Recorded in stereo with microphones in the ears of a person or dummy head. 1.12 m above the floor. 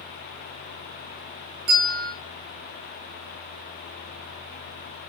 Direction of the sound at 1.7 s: 65° right (ahead or behind).